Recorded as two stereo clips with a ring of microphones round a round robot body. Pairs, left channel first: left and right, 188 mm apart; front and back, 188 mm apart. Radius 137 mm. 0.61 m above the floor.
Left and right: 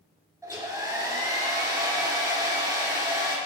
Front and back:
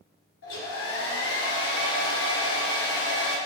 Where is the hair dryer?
15° right, 2 m.